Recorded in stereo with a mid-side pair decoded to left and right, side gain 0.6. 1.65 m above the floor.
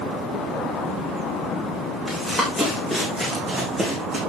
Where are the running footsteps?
10° right, 6 m; by 4.2 s 30° right, 5.5 m.